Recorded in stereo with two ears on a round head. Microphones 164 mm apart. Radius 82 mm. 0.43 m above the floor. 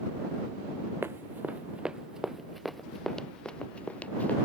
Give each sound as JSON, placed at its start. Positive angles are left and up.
{"t": 1.0, "sound": "running footsteps", "side_deg": -15}